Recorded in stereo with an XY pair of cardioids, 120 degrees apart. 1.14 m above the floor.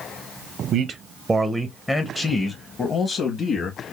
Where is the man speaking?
50° right, 0.6 m; by 3.8 s 50° left, 1.5 m.